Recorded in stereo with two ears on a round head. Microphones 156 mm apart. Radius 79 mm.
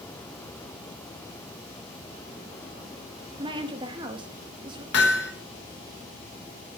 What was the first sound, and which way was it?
A woman speaking, 30° right (ahead or behind).